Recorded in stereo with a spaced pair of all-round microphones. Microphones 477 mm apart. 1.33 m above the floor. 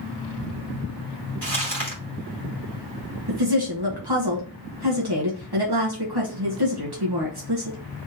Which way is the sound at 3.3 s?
55° right (ahead or behind).